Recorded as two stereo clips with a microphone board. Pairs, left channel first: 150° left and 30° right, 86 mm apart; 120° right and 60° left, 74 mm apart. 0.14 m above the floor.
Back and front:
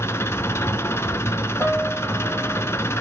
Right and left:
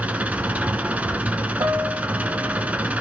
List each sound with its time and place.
0.0 s an engine running: 115° left, 0.9 m
1.6 s a piano: 50° left, 5.5 m